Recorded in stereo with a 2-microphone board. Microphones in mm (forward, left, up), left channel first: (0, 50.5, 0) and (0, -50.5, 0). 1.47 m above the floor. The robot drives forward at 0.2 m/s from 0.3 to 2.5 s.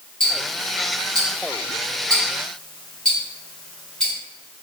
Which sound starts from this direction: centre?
Ticking, at 0.2 s.